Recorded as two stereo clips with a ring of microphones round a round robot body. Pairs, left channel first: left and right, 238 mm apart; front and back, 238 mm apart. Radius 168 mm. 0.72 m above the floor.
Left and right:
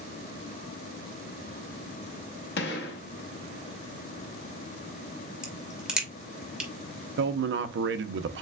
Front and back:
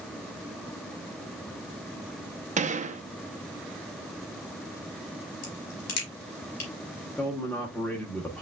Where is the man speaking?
85° right, 0.7 m.